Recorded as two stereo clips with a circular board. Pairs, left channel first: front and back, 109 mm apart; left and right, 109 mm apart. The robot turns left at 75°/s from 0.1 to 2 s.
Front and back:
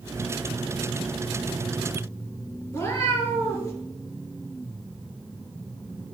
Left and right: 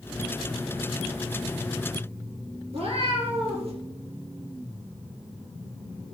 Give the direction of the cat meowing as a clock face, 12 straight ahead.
2 o'clock.